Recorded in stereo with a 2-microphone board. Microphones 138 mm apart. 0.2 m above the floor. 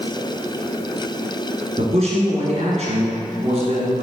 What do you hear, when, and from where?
1.8 s a man speaking: 50° right (ahead or behind), 2.0 m